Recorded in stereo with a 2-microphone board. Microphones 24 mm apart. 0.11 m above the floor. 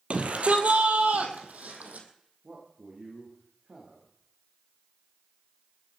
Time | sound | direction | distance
0.1 | a shout | 50° right (ahead or behind) | 2.5 m
2.4 | a man speaking | 50° right (ahead or behind) | 7 m